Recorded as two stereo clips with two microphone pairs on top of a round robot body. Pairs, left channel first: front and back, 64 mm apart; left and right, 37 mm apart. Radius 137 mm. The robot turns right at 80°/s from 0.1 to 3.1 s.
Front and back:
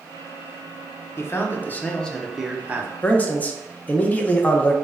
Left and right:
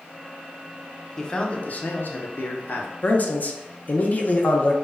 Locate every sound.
1.2 s a man speaking: 5° right, 0.6 m; by 2.9 s 135° left, 0.6 m
3.0 s a man speaking: 35° left, 0.6 m; by 4.7 s 45° left, 0.6 m